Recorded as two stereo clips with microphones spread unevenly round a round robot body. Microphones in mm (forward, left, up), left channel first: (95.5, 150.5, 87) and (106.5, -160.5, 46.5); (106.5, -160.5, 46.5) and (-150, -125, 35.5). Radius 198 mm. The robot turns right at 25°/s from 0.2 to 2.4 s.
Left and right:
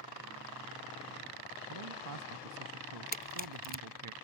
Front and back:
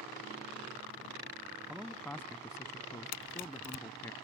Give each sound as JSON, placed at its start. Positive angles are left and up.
{"t": 1.7, "sound": "a man speaking", "azimuth_deg": -105}
{"t": 3.1, "sound": "a camera shutter", "azimuth_deg": 30}